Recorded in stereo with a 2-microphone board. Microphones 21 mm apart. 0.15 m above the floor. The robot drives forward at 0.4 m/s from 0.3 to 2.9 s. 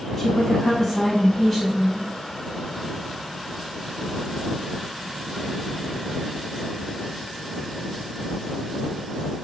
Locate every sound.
0.2 s a woman speaking: 20° left (ahead or behind), 1.0 m; by 2.1 s 15° left (ahead or behind), 1.2 m